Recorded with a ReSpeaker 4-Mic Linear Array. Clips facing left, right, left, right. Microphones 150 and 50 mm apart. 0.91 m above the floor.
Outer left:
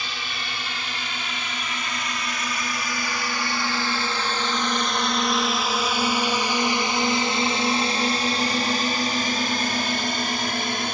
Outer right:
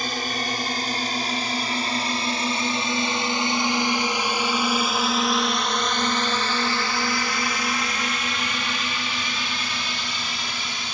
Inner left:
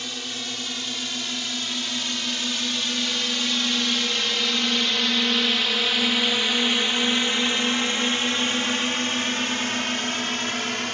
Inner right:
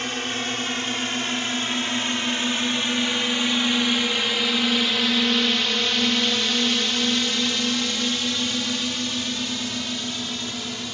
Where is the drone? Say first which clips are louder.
Outer right 7 dB, inner right 6 dB; 45° right (ahead or behind); by 10.9 s 55° left (ahead or behind).